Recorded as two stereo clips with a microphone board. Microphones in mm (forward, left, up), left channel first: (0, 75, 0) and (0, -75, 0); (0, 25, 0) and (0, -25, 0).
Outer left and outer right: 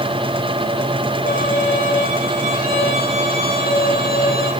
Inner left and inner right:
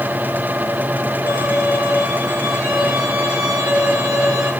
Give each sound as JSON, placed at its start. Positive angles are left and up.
{"t": 1.3, "sound": "a violin", "side_deg": 70, "distance_m": 6.0}